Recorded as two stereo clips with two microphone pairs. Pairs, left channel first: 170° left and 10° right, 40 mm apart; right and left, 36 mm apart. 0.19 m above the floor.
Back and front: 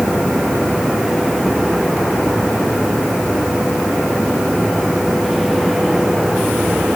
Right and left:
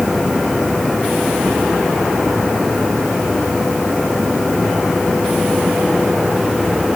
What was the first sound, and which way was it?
Only background noise.